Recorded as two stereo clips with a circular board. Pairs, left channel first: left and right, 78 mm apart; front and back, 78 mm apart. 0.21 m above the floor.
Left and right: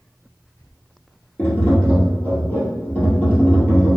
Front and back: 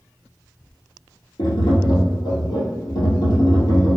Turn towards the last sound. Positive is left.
turn(degrees=25)